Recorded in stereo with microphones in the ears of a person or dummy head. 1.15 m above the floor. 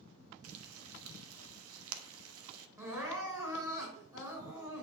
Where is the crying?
25° right (ahead or behind), 4 m.